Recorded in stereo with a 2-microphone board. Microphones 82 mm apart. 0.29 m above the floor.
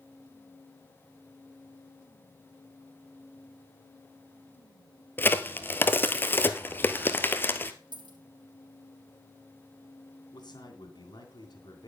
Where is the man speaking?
60° left (ahead or behind), 2.5 m.